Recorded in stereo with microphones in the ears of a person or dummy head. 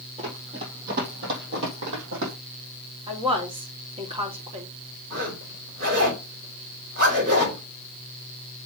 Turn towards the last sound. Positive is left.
turn(degrees=-50)  # may be behind; listen again after turning